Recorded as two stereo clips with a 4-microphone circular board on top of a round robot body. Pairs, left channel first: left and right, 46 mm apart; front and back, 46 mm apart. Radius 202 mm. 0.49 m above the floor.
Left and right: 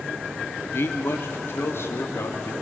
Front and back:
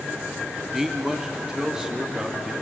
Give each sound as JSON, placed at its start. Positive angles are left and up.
{"t": 0.7, "sound": "a man speaking", "azimuth_deg": 105, "distance_m": 2.0}